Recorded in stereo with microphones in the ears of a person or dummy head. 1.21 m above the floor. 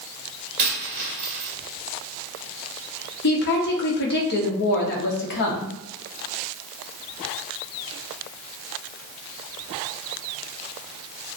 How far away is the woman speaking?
About 0.7 m.